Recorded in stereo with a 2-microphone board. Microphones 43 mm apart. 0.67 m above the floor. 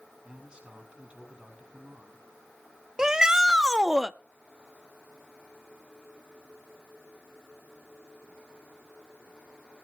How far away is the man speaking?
About 6 m.